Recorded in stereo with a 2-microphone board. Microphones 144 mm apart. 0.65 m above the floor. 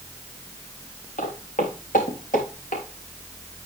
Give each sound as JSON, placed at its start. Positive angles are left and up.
{"t": 1.2, "sound": "footsteps", "side_deg": 70, "distance_m": 2.5}